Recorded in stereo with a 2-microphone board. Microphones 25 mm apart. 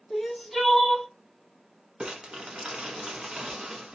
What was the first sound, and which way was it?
Crying, 5° left (ahead or behind).